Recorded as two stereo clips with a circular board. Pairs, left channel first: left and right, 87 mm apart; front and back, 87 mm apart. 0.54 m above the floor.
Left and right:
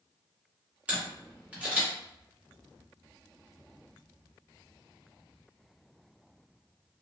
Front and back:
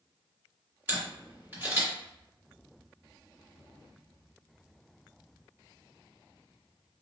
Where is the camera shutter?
145° right, 1.3 m.